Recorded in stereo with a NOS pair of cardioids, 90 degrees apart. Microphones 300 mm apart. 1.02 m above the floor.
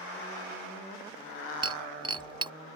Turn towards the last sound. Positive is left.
turn(degrees=-15)